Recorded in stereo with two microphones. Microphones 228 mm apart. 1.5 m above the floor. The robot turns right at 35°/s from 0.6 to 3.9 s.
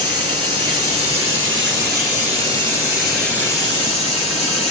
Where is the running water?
90° right, 8.5 m; by 4.7 s 25° left, 8.5 m.